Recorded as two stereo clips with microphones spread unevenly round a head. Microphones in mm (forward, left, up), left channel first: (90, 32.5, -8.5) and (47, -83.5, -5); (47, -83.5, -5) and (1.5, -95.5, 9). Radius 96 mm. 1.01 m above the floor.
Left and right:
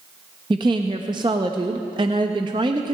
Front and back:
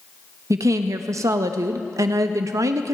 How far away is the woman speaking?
About 0.8 m.